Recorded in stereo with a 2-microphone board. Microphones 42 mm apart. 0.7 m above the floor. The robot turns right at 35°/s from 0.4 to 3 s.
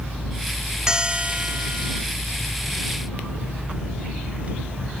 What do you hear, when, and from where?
0.9 s a bell: 165° right; by 2.0 s 125° right